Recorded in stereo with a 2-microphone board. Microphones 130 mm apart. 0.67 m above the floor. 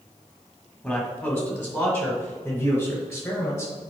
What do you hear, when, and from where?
0.8 s a man speaking: 10° left (ahead or behind), 2 m; by 3.7 s 25° left (ahead or behind), 4 m